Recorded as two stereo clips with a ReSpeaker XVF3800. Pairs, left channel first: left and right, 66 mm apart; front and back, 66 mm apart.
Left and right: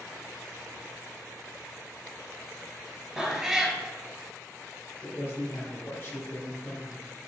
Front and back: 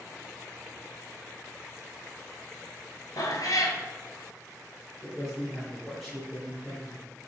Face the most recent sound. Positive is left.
turn(degrees=95)